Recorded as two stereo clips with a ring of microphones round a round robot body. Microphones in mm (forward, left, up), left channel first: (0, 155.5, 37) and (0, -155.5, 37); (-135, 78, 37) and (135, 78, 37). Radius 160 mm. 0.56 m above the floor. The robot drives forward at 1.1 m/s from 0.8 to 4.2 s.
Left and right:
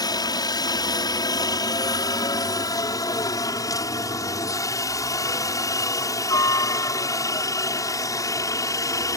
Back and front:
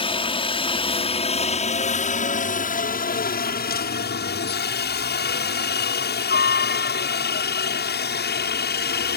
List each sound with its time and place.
0.0 s a helicopter: 145° left; by 9.2 s 165° left